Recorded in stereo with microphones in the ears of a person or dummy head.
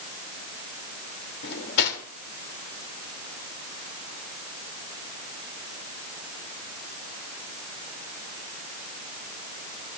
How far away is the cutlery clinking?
About 2.5 m.